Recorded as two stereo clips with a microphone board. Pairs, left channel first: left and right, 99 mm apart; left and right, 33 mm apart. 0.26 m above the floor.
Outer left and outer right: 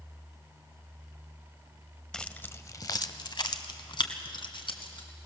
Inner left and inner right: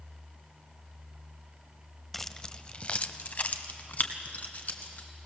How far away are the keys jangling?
About 0.6 m.